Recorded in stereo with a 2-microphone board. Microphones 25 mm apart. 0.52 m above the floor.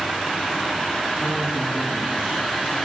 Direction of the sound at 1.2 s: 65° right (ahead or behind).